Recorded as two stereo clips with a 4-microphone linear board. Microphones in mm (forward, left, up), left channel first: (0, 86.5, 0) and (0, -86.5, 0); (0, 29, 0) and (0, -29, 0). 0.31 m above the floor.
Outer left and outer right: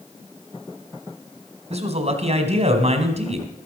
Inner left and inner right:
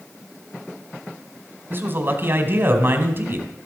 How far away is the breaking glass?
No breaking glass in this recording.